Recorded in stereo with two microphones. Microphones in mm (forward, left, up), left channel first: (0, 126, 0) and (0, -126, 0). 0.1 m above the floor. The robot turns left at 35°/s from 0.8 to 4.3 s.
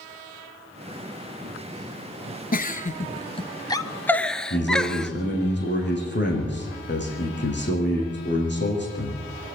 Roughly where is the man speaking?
Left.